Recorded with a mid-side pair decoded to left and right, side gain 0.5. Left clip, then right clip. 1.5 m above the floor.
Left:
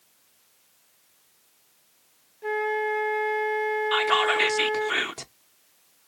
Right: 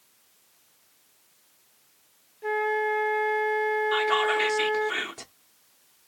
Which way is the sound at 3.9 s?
40° left.